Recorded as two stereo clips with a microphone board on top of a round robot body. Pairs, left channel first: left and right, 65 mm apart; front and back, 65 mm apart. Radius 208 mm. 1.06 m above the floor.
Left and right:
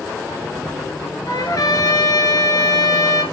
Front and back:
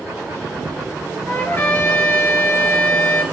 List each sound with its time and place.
1.3 s a trumpet: 65° left, 2.5 m